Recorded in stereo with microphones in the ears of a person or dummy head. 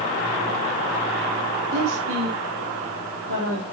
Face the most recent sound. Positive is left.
turn(degrees=-75)  # may be behind; listen again after turning